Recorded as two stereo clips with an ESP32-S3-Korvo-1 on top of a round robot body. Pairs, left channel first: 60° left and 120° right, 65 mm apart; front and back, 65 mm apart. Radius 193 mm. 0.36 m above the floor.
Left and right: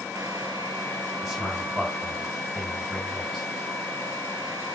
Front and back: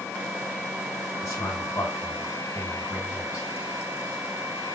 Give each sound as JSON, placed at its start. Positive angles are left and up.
{"t": 1.2, "sound": "a man speaking", "azimuth_deg": -35, "distance_m": 4.5}